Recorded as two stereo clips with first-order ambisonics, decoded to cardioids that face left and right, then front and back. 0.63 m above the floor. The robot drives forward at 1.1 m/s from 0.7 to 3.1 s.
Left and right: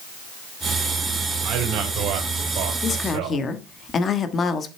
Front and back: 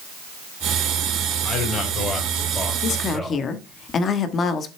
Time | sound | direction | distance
1.4 | a man speaking | 50° right | 3.5 m
2.8 | a woman speaking | 30° left | 1.3 m